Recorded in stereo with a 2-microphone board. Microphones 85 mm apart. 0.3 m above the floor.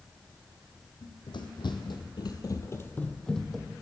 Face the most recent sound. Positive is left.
turn(degrees=-5)  # may be behind; listen again after turning